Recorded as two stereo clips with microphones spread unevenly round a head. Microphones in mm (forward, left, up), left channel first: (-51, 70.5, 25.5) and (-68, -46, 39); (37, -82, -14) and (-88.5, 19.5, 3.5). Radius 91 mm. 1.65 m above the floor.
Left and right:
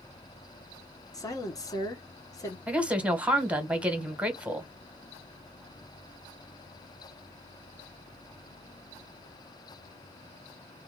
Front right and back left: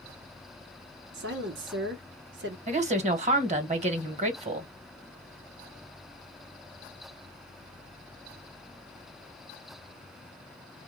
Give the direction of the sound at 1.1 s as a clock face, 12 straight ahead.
7 o'clock.